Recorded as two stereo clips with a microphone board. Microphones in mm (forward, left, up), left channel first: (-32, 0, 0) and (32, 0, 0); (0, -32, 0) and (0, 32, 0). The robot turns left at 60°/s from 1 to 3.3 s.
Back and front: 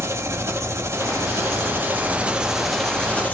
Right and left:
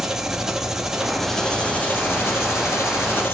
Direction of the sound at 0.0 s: 10° left.